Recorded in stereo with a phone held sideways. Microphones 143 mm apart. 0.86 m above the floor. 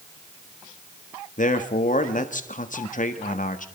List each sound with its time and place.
1.4 s a man speaking: 65° left (ahead or behind), 1.2 m